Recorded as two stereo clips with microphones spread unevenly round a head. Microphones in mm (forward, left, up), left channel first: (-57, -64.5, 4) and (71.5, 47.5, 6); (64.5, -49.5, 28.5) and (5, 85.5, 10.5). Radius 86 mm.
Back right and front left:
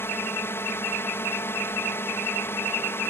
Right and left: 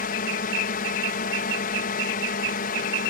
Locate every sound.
0.0 s a drone: 65° right